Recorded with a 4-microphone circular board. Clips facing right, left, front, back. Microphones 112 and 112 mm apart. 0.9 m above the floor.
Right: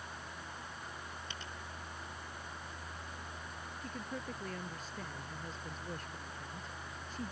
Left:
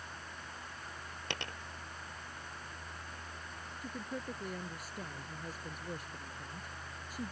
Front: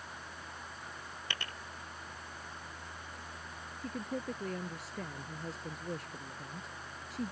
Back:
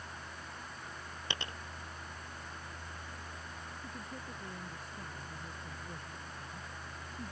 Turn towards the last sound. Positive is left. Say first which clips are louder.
# left 2 dB, front 11 dB
turn(degrees=10)